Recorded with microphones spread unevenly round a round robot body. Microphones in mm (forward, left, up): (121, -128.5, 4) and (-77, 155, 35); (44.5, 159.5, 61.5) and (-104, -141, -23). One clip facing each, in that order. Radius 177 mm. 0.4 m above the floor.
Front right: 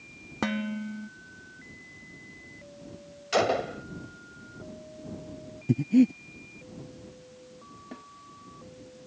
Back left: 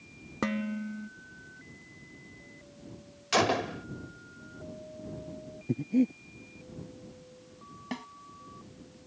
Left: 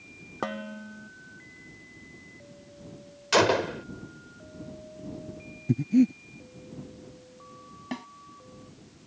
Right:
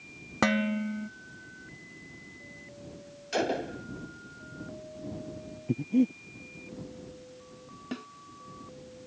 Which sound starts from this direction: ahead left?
A gunshot, at 3.3 s.